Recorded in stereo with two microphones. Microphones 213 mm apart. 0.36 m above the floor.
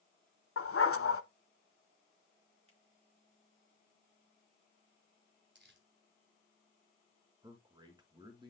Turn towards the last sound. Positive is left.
turn(degrees=-20)  # may be behind; listen again after turning